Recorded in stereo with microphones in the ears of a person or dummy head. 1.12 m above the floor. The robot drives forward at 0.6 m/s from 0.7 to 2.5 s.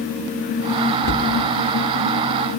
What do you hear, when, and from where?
1.0 s a cupboard door: 55° left (ahead or behind), 1.2 m; by 1.3 s 50° left (ahead or behind), 1.3 m